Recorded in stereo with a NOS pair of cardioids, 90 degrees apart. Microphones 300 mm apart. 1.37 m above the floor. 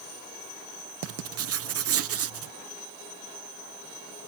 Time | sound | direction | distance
1.0 | writing | 50° right | ?